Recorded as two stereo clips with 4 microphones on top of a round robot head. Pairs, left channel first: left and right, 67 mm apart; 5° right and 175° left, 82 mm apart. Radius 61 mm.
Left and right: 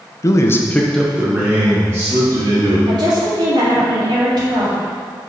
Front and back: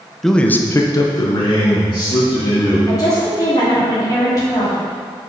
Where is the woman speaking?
60° right, 2 m.